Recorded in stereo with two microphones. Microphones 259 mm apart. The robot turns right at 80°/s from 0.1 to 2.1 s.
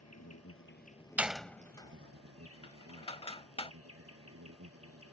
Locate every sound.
0.0 s an insect: 85° left; by 5.1 s 115° right
1.2 s a door slam: 5° right (ahead or behind); by 3.7 s 20° left (ahead or behind)